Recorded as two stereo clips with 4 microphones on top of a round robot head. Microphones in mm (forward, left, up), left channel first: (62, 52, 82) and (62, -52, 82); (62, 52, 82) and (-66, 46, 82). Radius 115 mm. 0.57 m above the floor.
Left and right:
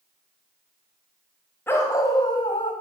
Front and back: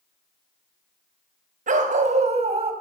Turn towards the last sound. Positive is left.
turn(degrees=140)